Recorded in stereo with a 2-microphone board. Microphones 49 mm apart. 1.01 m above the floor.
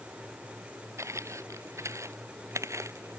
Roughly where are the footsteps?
Right.